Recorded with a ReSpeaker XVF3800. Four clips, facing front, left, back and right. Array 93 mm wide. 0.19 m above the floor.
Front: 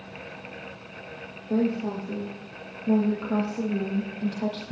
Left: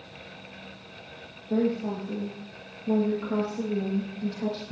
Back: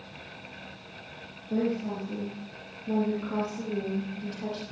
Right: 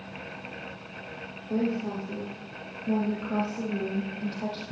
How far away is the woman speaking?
About 6.5 m.